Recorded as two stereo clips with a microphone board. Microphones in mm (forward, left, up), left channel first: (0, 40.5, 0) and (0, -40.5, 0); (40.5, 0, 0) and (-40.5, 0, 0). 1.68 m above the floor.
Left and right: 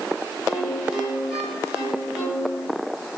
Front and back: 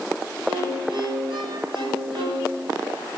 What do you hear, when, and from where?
0.5 s a violin: 170° right, 5.5 m